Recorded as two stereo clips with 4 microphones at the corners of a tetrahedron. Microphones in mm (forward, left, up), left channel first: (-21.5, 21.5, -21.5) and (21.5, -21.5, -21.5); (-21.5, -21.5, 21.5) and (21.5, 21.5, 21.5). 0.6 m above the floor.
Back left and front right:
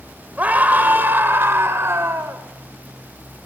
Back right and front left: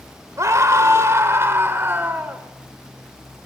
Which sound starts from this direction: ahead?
A scream, at 0.4 s.